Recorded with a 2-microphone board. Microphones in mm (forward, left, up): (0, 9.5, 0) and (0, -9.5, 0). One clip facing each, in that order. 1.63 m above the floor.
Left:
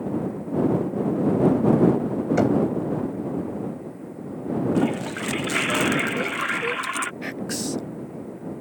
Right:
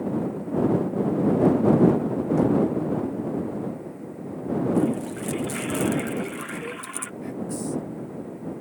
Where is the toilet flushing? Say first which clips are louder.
Left 1 dB; 40° left (ahead or behind).